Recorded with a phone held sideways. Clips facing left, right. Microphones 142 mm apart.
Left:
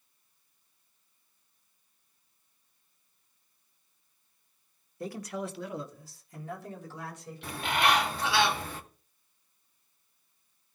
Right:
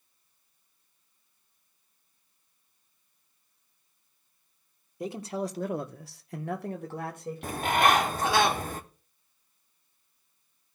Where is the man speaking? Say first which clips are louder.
Right 3 dB; 20° right (ahead or behind), 1.3 m; by 8.0 s 45° right (ahead or behind), 2.5 m.